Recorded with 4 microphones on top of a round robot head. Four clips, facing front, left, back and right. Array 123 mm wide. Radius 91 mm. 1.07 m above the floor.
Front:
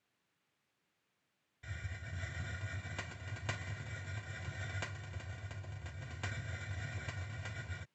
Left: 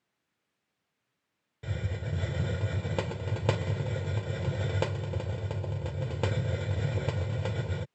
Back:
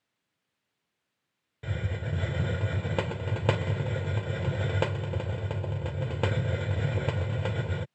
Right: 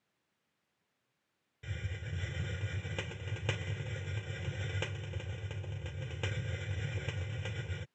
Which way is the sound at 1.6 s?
155° left.